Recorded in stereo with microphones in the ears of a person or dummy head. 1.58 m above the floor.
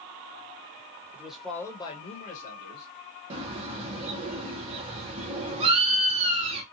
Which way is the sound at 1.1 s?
10° right (ahead or behind).